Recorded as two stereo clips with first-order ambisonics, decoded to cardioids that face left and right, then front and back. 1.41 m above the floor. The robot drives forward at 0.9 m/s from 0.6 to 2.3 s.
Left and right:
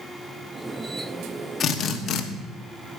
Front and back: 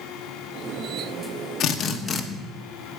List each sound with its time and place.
1.6 s a drill: 35° left, 1.2 m; by 2.2 s 70° left, 0.9 m